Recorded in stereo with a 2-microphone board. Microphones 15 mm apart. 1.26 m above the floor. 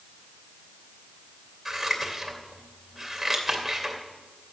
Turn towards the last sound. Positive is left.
turn(degrees=-20)  # may be behind; listen again after turning